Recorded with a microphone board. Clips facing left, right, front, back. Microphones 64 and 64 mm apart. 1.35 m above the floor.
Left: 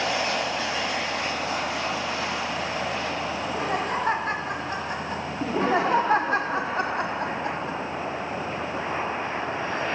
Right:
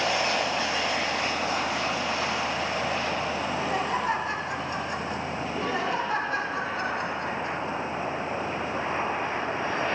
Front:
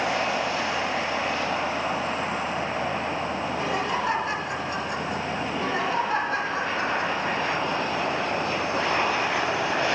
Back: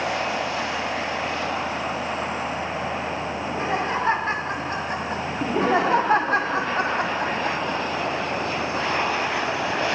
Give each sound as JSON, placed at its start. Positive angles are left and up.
{"t": 3.4, "sound": "laughter", "azimuth_deg": 120, "distance_m": 4.0}
{"t": 5.4, "sound": "laughter", "azimuth_deg": 135, "distance_m": 1.1}